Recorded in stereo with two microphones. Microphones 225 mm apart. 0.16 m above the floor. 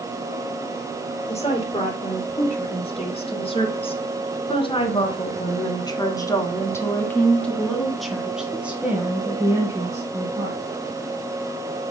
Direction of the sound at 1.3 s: 25° left (ahead or behind).